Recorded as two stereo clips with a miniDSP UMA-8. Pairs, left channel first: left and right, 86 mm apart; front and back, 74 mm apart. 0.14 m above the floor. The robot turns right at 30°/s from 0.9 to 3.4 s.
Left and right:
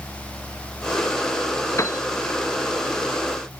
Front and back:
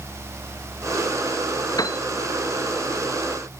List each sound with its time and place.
1.8 s a piano: 35° left; by 2.0 s 40° left